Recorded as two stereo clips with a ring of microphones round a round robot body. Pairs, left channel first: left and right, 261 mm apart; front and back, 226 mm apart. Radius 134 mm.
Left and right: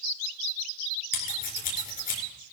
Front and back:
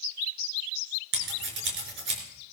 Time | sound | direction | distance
1.1 | scissors | 150° left | 4.5 m